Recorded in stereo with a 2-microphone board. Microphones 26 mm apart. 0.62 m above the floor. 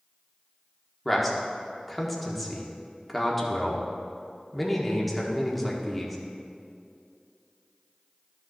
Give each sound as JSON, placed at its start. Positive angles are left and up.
{"t": 1.1, "sound": "a man speaking", "side_deg": 5, "distance_m": 1.2}